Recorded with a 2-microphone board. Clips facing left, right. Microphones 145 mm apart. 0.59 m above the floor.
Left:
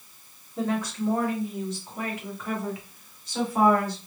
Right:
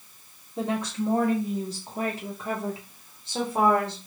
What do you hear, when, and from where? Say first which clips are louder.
0.6 s a woman speaking: even; 15° right (ahead or behind), 1.0 m; by 4.0 s 25° right (ahead or behind), 1.8 m